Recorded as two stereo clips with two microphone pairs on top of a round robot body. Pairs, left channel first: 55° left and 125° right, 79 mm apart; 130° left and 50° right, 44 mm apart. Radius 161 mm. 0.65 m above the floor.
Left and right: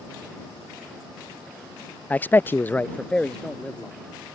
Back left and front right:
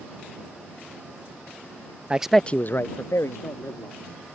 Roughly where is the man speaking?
Ahead.